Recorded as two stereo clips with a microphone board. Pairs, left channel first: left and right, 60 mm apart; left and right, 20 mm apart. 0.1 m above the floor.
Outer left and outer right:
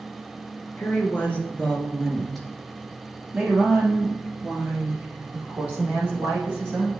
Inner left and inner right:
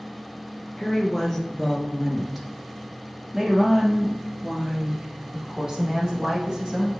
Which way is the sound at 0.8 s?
35° left (ahead or behind).